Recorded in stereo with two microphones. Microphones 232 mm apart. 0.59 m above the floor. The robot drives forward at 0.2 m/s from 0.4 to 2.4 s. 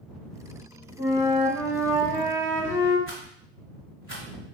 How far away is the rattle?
About 1.7 m.